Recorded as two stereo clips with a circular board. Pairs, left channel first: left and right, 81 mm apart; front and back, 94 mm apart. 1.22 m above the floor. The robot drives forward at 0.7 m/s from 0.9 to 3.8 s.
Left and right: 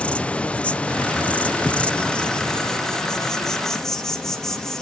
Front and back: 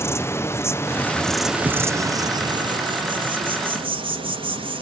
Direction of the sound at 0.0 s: 30° left.